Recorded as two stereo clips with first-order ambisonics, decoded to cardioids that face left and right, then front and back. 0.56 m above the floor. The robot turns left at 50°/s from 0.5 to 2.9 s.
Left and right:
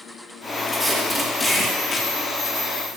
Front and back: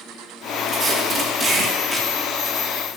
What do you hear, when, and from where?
0.7 s tape being pulled: straight behind, 1.2 m; by 3.0 s 70° left, 1.2 m